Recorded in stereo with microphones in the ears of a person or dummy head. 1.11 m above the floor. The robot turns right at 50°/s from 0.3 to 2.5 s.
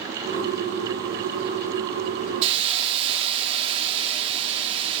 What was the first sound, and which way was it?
A hiss, 35° right (ahead or behind).